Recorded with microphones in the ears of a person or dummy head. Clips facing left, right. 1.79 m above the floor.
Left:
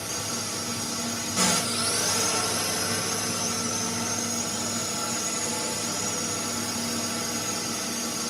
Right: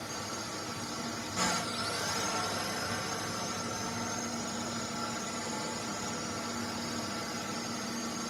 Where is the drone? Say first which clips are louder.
Left 5 dB; 55° left (ahead or behind).